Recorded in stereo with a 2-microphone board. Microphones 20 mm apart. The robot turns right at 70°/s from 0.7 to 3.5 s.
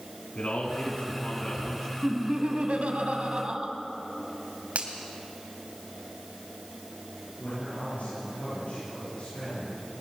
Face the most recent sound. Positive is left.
turn(degrees=85)